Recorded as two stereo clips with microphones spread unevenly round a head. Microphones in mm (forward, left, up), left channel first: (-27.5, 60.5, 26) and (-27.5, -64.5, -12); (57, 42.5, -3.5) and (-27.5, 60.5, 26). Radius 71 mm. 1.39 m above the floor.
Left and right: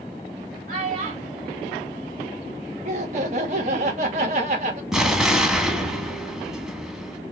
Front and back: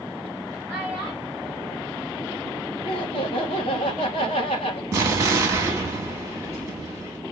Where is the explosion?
170° left, 1.1 m.